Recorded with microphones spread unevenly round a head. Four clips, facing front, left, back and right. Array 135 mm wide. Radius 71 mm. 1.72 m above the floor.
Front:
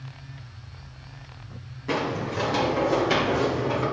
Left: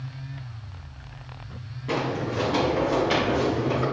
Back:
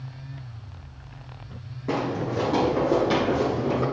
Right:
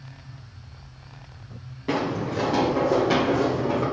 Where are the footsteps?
140° right, 2.5 m.